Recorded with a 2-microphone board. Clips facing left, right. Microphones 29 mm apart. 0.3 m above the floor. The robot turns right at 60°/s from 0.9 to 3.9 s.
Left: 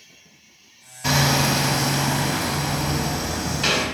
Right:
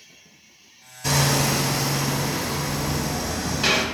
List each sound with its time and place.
1.0 s hammering: 25° left, 0.8 m; by 3.9 s 170° right, 0.8 m